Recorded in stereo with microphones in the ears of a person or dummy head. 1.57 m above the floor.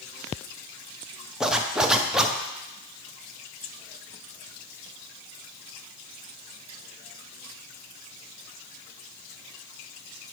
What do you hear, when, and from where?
1.4 s a zipper: 5° right (ahead or behind), 0.6 m